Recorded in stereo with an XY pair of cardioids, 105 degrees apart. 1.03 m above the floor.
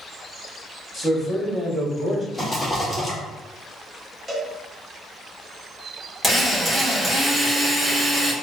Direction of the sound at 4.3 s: 20° right.